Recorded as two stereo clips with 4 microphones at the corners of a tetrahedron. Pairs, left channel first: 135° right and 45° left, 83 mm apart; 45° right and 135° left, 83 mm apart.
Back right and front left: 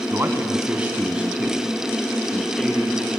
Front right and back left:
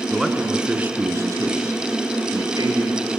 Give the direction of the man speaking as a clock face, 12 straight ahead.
10 o'clock.